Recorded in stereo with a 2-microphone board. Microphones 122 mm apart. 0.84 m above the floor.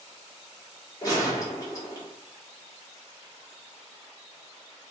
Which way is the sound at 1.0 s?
30° left (ahead or behind).